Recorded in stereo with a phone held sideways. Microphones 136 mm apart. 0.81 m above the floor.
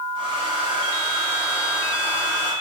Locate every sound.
0.1 s a hair dryer: 40° right (ahead or behind), 4 m